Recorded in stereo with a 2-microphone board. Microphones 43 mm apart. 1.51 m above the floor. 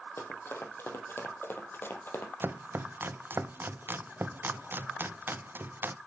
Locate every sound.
0.2 s running footsteps: 65° left (ahead or behind), 3.5 m; by 2.3 s 55° left (ahead or behind), 3 m
2.4 s chopping: 50° right (ahead or behind), 0.6 m